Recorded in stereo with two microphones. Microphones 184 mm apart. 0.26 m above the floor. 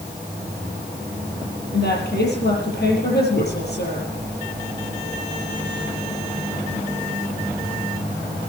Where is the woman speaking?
65° left (ahead or behind), 7.5 m.